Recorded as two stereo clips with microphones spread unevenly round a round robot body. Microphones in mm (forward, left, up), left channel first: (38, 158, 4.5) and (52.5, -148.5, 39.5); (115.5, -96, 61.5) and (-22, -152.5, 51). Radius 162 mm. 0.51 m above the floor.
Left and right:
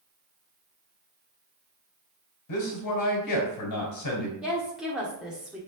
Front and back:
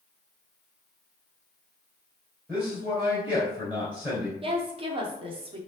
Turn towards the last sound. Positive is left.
turn(degrees=180)